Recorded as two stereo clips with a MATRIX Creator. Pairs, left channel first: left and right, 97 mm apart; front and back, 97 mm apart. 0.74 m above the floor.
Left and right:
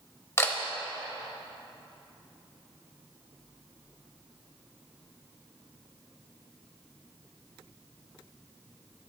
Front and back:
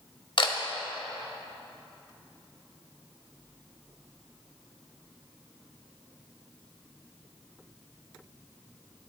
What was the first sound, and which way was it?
A camera shutter, 25° left.